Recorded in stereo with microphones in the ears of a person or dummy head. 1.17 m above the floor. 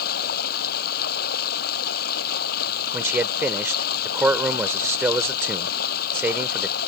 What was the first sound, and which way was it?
Running water, 55° left (ahead or behind).